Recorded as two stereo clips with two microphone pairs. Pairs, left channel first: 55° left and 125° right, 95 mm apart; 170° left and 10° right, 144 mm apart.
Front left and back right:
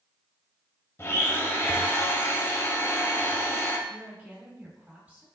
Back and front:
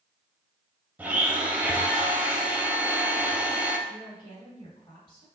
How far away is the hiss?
No hiss in this recording.